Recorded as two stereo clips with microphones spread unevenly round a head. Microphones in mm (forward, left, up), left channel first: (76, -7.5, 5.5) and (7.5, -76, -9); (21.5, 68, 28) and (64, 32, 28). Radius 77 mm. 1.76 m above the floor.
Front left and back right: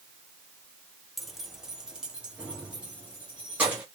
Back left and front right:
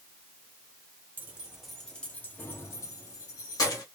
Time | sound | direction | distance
1.2 | keys jangling | 30° right | 0.7 m